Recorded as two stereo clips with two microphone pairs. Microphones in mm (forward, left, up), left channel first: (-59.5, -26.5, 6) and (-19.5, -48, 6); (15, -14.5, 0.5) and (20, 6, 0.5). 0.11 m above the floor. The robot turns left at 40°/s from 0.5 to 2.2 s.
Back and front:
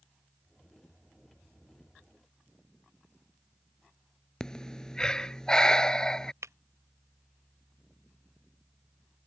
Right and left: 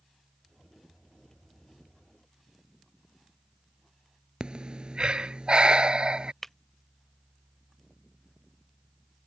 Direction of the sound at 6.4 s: 25° right.